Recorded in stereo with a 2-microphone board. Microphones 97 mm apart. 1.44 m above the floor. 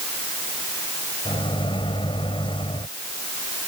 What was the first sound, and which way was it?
A microwave, 60° left (ahead or behind).